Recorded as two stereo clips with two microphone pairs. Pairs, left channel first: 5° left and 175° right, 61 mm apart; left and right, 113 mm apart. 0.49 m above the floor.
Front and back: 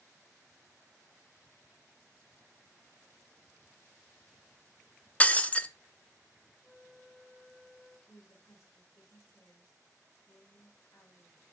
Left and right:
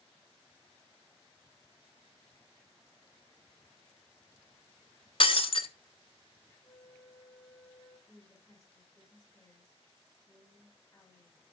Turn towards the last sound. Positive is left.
turn(degrees=30)